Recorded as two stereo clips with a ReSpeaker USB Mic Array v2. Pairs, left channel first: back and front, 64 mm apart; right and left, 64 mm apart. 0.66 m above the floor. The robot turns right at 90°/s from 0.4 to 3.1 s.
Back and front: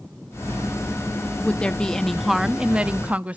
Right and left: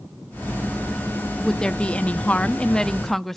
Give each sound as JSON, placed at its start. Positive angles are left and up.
{"t": 1.4, "sound": "a woman speaking", "azimuth_deg": -165, "distance_m": 0.5}